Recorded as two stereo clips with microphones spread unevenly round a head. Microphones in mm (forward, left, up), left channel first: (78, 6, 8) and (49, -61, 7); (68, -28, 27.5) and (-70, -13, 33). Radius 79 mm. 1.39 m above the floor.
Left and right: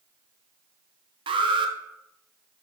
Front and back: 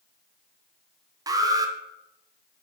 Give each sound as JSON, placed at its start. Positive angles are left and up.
{"t": 1.3, "sound": "an alarm", "azimuth_deg": -120, "distance_m": 0.8}